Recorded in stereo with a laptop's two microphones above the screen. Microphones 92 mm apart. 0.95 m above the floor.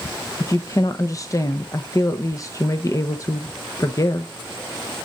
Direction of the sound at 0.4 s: 35° left (ahead or behind).